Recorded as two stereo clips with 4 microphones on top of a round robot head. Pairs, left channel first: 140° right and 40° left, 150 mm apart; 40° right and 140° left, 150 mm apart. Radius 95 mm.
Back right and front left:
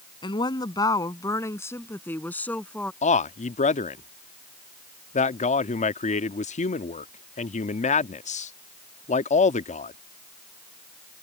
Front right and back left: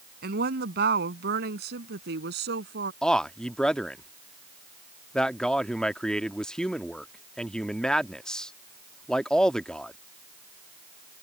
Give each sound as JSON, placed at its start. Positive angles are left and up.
{"t": 0.2, "sound": "a woman speaking", "azimuth_deg": 160}
{"t": 3.0, "sound": "a man speaking", "azimuth_deg": -125}